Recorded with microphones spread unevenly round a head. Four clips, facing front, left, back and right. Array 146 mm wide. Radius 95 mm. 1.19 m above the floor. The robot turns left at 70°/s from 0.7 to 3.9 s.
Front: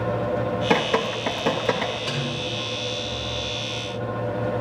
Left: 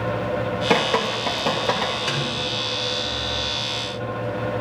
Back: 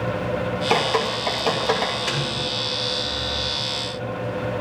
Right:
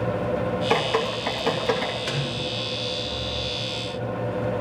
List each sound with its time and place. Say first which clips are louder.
0.7 s dripping: left 4 dB, back 2 dB; 55° left, 2.5 m; by 1.9 s 30° right, 2.5 m
2.1 s a snare drum: left 2 dB, back 2 dB; 40° right, 5 m; by 2.3 s 60° right, 5 m